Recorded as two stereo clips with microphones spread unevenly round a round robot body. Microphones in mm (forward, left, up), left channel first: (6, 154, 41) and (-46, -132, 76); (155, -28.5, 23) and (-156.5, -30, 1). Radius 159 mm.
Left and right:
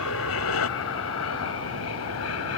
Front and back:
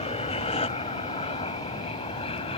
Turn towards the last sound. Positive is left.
turn(degrees=70)